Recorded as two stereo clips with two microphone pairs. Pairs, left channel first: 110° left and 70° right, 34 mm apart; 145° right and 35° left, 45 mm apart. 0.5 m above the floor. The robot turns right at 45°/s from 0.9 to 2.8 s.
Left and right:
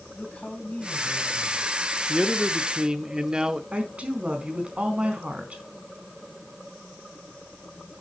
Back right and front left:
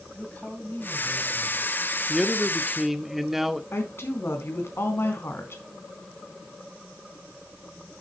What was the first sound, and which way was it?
A man speaking, 160° left.